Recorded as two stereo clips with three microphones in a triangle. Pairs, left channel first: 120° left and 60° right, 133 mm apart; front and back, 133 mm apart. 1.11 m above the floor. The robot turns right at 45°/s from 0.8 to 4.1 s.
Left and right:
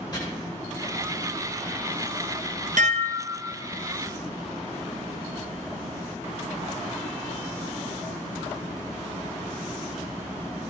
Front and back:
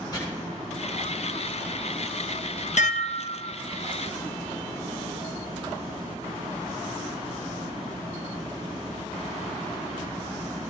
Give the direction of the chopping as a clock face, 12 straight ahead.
10 o'clock.